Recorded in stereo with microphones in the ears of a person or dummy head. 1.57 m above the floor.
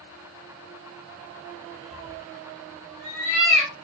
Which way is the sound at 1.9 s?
Centre (ahead or behind).